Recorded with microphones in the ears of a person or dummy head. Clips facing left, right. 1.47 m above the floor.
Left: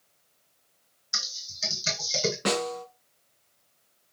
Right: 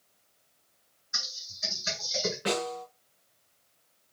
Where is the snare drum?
70° left (ahead or behind), 4 m.